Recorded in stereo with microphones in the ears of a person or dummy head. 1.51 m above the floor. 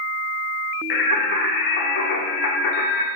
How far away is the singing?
About 0.6 m.